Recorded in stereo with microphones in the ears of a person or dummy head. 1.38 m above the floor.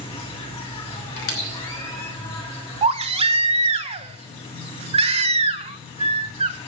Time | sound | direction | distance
0.0 | an insect | 35° left (ahead or behind) | 3.5 m
1.2 | a squeak | 70° left (ahead or behind) | 3 m
2.8 | a baby crying | 30° right (ahead or behind) | 0.8 m